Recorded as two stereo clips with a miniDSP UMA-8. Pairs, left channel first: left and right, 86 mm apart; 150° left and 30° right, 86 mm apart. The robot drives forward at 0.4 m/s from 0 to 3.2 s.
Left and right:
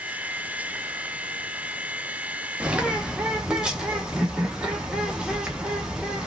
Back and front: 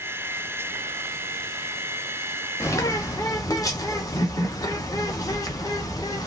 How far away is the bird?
About 0.6 m.